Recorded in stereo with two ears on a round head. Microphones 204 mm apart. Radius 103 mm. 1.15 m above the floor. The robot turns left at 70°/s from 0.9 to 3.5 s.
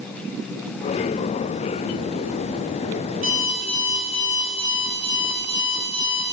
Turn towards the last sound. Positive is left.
turn(degrees=-25)  # may be behind; listen again after turning